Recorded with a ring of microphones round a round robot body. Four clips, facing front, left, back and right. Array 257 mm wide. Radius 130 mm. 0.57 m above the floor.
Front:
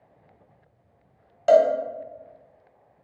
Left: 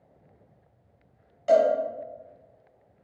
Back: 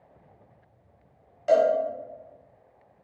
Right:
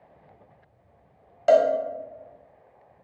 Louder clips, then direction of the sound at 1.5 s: Right 2 dB, front 4 dB; 55° right.